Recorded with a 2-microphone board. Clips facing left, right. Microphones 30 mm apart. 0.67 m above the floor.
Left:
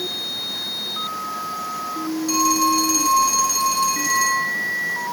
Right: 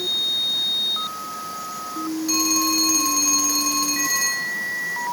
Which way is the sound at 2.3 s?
10° right (ahead or behind).